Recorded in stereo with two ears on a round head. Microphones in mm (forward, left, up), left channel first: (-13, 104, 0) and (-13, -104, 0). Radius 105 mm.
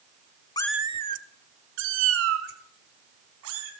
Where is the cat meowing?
20° left (ahead or behind), 0.5 m; by 3.7 s 65° right (ahead or behind), 3.5 m.